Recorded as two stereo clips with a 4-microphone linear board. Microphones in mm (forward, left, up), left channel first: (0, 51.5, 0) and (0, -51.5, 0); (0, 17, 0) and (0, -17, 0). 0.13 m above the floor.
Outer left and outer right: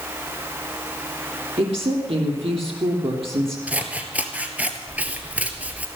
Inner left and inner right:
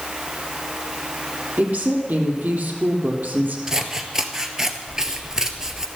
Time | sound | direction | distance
1.6 | a woman speaking | 70° right (ahead or behind) | 3.5 m
3.7 | scissors | 15° right (ahead or behind) | 1.3 m